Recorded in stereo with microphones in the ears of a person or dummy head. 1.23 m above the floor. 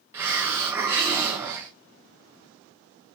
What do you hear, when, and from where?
0.1 s a hiss: 10° right (ahead or behind), 0.6 m